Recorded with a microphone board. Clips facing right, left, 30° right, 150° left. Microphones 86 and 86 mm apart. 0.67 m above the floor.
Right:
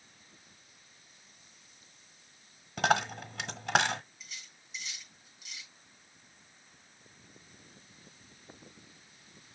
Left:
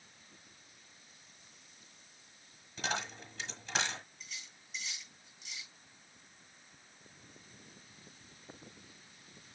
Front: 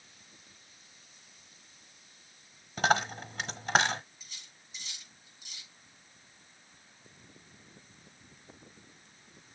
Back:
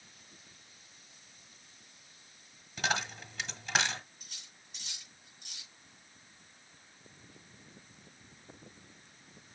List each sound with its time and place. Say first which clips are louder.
2.8 s a dropped coin: right 10 dB, front 7 dB; 75° right, 1.2 m
4.2 s cutlery clinking: even, front 1 dB; 175° right, 6.5 m